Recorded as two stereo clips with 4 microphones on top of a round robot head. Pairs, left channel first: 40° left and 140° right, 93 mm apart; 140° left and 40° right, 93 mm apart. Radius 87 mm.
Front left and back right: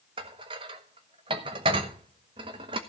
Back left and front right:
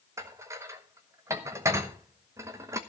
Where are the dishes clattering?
100° right, 1.0 m.